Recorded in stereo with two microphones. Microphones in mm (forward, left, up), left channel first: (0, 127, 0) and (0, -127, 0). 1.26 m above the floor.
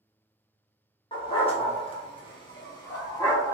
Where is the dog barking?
20° left (ahead or behind), 0.8 m; by 3.5 s 10° left (ahead or behind), 1.3 m.